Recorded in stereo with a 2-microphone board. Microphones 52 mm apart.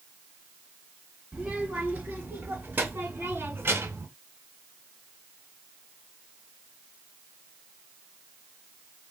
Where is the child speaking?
10° right (ahead or behind), 2.5 m; by 4.1 s 50° right (ahead or behind), 1.6 m.